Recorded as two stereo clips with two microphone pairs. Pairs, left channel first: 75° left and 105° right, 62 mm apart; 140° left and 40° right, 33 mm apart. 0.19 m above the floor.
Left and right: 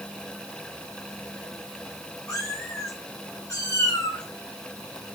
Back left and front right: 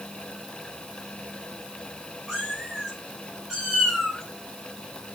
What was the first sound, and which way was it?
A cat meowing, 40° left.